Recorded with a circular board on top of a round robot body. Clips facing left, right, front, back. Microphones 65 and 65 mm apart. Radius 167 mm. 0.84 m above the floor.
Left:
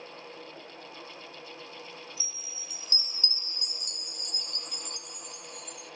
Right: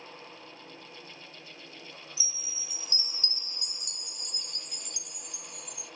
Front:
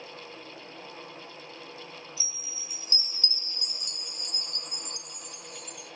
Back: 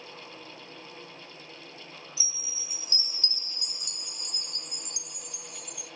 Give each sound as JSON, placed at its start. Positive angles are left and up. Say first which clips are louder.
{"t": 2.2, "sound": "a chime", "louder": "even, even", "azimuth_deg": 45, "distance_m": 0.6}